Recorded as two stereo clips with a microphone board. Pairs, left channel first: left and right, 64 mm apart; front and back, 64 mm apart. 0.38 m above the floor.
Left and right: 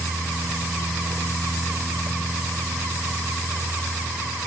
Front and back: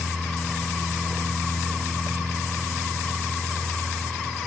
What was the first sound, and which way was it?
Only background noise.